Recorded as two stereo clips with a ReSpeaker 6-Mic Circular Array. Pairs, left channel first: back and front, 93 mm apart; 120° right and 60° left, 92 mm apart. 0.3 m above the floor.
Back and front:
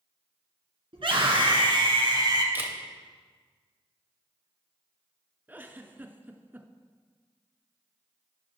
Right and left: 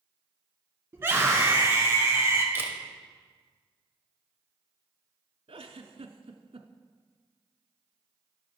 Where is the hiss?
No hiss in this recording.